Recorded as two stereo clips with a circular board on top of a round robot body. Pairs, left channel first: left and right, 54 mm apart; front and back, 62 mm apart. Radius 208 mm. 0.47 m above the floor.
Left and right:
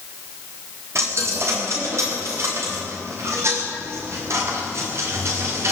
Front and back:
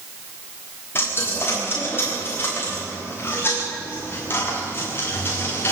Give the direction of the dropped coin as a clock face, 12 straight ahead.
2 o'clock.